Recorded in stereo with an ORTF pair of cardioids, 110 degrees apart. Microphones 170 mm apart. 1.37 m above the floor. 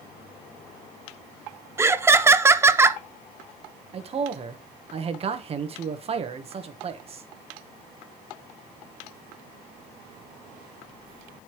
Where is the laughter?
15° right, 0.7 m.